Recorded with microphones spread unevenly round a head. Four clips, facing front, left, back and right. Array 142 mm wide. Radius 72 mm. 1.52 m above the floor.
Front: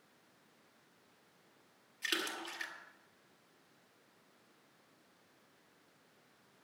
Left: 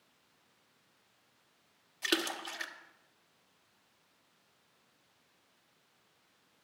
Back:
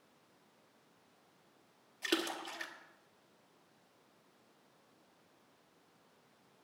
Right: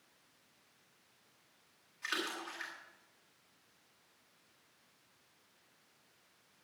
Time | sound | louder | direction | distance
2.0 | a splash | left 5 dB, back 4 dB | 100° left | 1.4 m